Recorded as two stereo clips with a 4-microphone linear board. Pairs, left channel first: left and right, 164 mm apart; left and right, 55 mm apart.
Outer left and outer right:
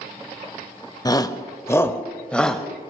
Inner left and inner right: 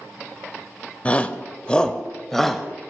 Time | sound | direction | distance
1.1 | a shout | 25° left (ahead or behind) | 1.0 m